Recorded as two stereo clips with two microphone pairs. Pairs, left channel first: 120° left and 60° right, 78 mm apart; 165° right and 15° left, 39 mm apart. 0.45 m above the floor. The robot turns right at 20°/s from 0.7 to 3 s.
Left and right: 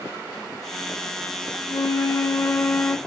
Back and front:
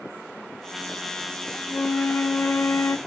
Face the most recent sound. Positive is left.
turn(degrees=-175)